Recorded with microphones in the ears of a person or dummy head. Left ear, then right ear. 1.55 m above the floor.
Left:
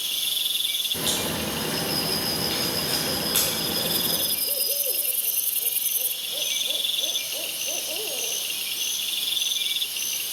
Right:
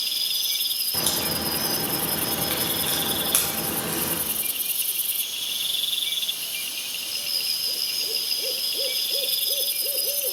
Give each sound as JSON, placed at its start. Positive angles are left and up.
{"t": 0.9, "sound": "a crack", "side_deg": -35, "distance_m": 1.1}